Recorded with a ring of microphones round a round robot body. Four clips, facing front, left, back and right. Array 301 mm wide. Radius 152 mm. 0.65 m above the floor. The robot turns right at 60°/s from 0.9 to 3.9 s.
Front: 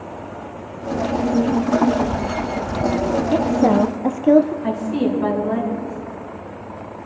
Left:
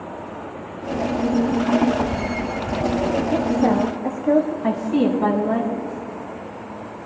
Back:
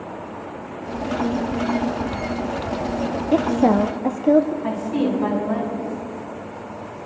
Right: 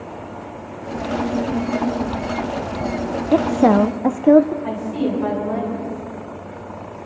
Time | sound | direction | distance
3.3 | a woman speaking | 110° right | 0.6 m
4.6 | a woman speaking | 85° left | 5.5 m